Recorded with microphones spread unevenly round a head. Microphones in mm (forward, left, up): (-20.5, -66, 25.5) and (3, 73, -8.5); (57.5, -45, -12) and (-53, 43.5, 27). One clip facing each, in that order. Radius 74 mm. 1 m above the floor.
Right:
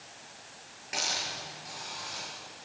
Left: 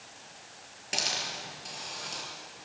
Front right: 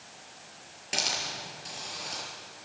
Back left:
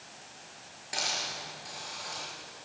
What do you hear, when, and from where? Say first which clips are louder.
0.9 s a hiss: even, front right 2 dB; 25° left, 6.5 m